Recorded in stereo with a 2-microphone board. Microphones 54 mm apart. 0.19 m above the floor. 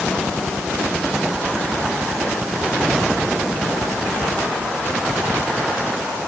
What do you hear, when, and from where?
Only background noise.